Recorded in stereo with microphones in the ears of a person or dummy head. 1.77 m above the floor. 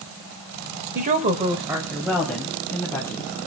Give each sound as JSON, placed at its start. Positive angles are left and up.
{"t": 0.9, "sound": "a woman speaking", "side_deg": -45, "distance_m": 1.6}